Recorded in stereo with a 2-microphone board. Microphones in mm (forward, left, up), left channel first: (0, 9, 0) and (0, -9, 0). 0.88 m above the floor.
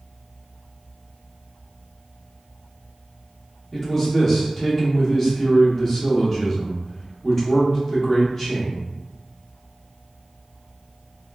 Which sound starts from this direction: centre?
A man speaking, at 3.7 s.